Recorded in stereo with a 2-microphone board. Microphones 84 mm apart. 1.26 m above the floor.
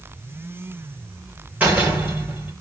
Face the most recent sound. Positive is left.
turn(degrees=-20)  # may be behind; listen again after turning